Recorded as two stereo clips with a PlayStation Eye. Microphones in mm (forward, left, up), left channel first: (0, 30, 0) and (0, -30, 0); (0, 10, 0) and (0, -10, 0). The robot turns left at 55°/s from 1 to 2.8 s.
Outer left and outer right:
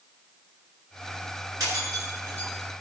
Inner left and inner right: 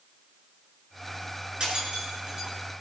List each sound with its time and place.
1.6 s breaking glass: 80° right, 9.5 m; by 2.5 s 30° right (ahead or behind), 9.5 m